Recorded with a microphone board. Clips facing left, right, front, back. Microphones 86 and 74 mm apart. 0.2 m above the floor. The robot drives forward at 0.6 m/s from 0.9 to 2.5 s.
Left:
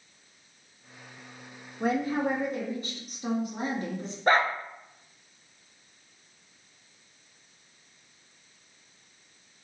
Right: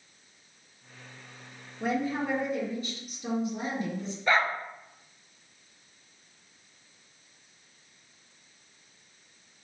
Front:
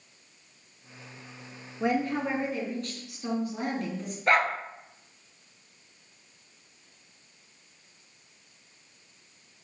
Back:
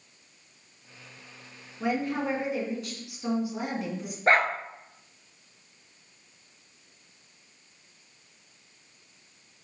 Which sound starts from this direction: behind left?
A dog barking, at 4.3 s.